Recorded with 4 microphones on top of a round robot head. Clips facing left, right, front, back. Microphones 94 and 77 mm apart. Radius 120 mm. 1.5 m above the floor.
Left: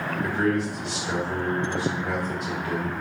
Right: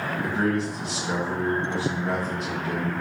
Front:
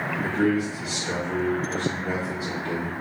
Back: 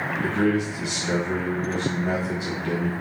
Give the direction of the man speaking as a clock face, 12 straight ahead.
5 o'clock.